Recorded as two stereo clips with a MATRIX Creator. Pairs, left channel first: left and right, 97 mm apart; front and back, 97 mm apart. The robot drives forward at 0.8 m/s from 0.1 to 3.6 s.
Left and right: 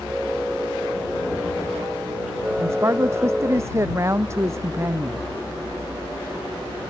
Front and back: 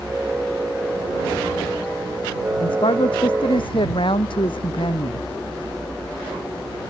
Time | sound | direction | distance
2.6 | a man speaking | 25° right | ?